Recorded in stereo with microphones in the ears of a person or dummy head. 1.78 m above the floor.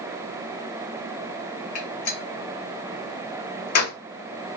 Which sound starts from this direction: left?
A gunshot, at 1.8 s.